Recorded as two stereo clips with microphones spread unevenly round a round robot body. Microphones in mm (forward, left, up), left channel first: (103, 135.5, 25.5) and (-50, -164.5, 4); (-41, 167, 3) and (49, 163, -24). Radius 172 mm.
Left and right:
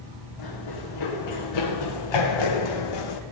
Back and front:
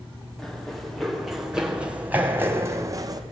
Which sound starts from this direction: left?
Running footsteps, at 0.4 s.